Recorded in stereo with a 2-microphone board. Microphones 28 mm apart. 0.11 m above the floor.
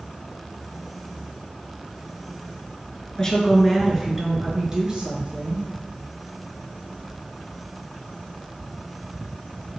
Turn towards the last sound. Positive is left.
turn(degrees=-45)  # may be behind; listen again after turning